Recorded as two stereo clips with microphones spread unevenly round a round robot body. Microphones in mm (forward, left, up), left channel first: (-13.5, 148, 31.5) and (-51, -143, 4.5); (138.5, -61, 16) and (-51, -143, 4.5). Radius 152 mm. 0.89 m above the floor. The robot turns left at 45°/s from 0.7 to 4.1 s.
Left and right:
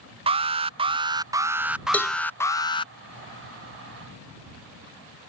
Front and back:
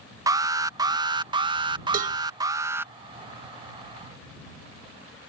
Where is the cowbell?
170° left; by 2.2 s 160° left.